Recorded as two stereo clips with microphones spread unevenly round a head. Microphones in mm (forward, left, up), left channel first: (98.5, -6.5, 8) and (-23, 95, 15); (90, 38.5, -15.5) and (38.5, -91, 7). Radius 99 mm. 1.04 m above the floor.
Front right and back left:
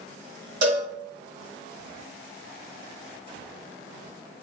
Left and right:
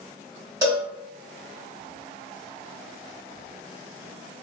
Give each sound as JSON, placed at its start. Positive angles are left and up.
{"t": 0.6, "sound": "a cowbell", "azimuth_deg": 180, "distance_m": 1.4}